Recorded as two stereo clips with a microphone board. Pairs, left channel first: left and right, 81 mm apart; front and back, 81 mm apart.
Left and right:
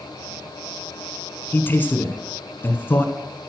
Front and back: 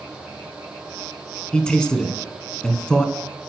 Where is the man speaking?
65° left, 1.3 m.